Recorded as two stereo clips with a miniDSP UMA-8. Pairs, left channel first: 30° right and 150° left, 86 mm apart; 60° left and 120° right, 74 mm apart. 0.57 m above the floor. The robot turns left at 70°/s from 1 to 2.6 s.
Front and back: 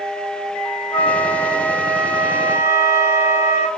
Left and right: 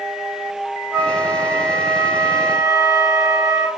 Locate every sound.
0.9 s a flute: 40° right, 1.1 m; by 3.7 s 150° right, 1.1 m